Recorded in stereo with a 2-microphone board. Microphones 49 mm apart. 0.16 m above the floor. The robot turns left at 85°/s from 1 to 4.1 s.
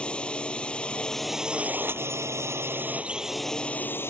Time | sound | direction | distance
0.0 | a drone | 25° left | ?